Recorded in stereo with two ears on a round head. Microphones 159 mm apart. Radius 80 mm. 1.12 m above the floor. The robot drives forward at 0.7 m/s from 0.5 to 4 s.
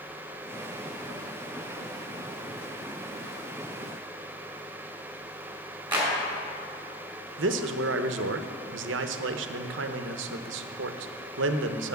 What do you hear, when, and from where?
5.9 s a clap: 10° right (ahead or behind), 4 m
7.4 s a man speaking: 75° right (ahead or behind), 0.7 m